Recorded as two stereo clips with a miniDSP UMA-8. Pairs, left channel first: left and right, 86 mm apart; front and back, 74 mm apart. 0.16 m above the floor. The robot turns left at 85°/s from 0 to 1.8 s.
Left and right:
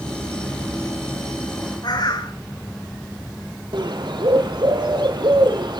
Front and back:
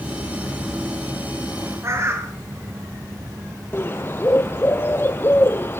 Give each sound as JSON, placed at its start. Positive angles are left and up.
{"t": 1.8, "sound": "a bird", "azimuth_deg": 130, "distance_m": 4.0}
{"t": 3.7, "sound": "a bird", "azimuth_deg": -60, "distance_m": 2.5}